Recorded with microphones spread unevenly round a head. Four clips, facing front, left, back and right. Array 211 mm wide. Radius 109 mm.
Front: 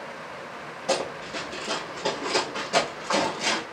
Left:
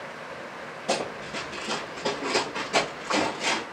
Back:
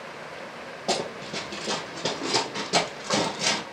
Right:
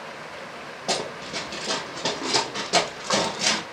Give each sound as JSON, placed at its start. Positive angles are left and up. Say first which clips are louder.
{"t": 0.9, "sound": "running footsteps", "louder": "even, front 2 dB", "azimuth_deg": -170, "distance_m": 2.5}